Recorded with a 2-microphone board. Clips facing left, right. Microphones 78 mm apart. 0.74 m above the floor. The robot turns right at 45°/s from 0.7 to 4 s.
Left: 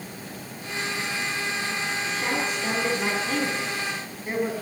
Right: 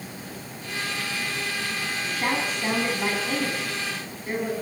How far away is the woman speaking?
About 6 m.